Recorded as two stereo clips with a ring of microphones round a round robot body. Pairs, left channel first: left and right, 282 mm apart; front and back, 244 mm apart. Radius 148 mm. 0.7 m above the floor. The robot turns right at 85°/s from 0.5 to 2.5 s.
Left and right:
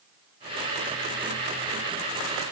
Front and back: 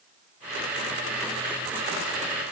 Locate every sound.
Only background noise.